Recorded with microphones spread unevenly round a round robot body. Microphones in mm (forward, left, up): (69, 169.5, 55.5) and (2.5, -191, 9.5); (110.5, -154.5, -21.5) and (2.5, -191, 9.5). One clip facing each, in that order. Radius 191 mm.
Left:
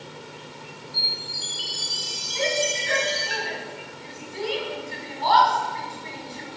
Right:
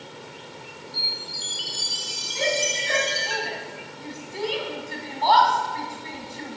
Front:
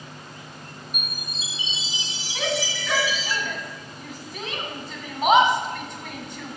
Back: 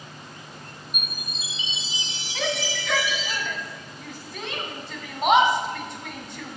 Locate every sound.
0.9 s a chime: 125° right, 1.7 m
2.4 s a shout: 65° right, 2.5 m